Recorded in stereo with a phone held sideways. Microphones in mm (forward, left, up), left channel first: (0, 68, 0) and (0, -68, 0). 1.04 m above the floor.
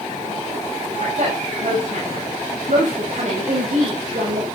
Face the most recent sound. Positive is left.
turn(degrees=-60)  # may be behind; listen again after turning